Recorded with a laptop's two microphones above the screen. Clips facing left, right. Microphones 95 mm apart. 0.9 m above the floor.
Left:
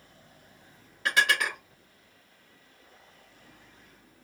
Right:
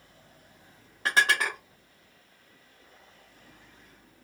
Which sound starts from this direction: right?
Dishes clattering, at 1.1 s.